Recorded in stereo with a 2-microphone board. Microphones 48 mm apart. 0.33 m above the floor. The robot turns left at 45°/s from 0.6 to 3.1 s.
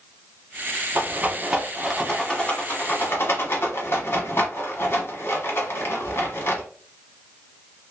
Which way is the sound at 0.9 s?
40° right (ahead or behind).